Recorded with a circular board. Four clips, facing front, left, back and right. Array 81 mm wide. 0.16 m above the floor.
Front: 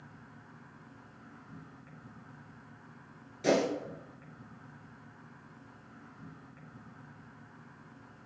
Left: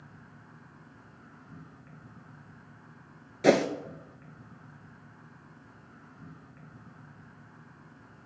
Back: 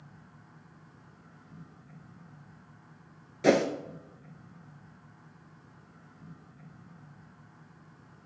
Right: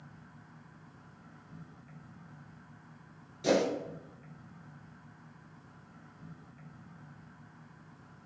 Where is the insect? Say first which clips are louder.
Left 2 dB, front 2 dB; 50° left, 3 m.